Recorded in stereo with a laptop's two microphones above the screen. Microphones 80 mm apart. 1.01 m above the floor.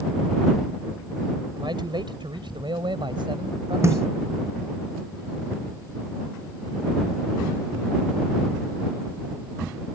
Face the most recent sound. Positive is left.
turn(degrees=-35)  # may be behind; listen again after turning